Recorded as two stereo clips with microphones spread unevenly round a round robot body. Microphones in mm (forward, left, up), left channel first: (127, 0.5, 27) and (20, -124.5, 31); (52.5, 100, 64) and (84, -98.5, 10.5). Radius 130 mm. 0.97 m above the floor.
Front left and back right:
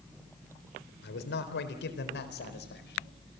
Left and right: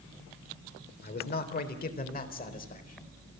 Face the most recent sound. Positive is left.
turn(degrees=50)